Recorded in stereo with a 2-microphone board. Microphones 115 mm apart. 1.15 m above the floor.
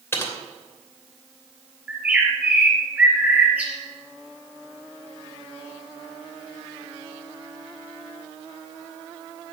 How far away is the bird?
About 3.5 m.